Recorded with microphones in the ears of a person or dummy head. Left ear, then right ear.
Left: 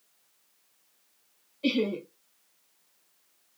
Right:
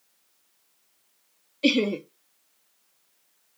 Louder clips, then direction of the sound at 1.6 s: Right 5 dB; 60° right (ahead or behind).